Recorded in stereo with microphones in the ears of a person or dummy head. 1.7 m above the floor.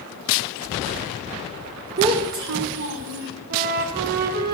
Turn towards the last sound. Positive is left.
turn(degrees=-50)  # may be behind; listen again after turning